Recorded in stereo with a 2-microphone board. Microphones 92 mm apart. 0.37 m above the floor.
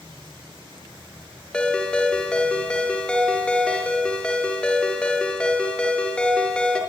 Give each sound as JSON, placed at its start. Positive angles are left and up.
{"t": 0.0, "sound": "an insect", "side_deg": -65, "distance_m": 10.0}
{"t": 1.5, "sound": "a ringtone", "side_deg": 10, "distance_m": 4.5}